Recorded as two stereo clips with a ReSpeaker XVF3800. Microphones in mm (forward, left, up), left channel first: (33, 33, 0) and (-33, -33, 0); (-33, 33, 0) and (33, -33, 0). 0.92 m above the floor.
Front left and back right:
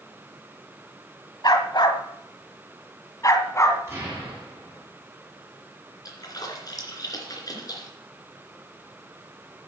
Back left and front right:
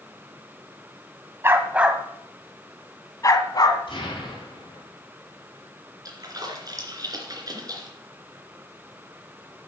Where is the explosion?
165° left, 7.5 m.